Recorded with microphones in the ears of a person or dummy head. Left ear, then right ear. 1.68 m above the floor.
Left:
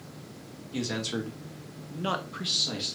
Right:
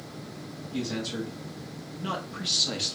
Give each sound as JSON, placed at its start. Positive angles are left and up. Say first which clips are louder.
{"t": 0.7, "sound": "a man speaking", "louder": "left 1 dB", "side_deg": 70, "distance_m": 1.4}